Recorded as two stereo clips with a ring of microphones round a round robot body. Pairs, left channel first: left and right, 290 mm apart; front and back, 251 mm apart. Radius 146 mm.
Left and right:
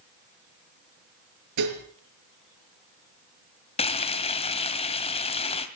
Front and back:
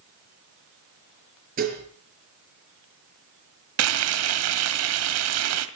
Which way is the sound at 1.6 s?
115° right.